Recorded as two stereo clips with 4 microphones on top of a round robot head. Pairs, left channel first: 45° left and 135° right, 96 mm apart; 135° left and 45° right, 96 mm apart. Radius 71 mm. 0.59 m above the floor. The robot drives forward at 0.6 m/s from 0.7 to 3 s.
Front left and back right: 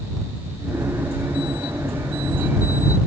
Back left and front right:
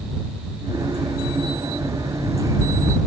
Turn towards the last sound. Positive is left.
No sound to turn to.